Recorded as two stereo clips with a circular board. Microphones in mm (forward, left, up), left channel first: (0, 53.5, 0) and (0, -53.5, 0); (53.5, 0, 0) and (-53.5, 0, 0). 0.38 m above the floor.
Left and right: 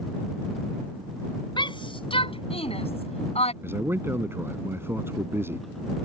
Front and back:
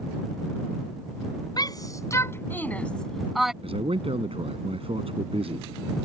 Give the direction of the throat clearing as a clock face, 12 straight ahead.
I don't hear throat clearing.